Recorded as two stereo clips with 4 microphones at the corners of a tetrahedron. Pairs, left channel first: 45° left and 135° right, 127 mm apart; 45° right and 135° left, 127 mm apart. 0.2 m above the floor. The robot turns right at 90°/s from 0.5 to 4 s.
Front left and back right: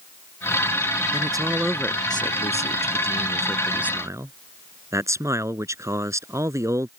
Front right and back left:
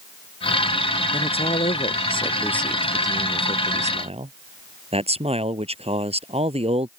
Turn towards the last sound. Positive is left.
turn(degrees=160)